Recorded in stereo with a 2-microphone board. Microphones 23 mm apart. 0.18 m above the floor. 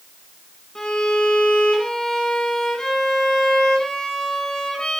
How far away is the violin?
About 1.6 m.